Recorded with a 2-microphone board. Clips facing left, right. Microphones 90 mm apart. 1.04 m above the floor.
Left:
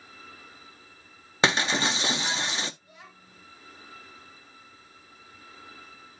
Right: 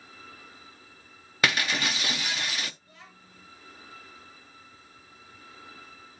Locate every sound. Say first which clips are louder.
1.4 s breaking glass: left 3 dB; 25° left (ahead or behind), 0.5 m
2.8 s a child speaking: left 1 dB; 15° left (ahead or behind), 3 m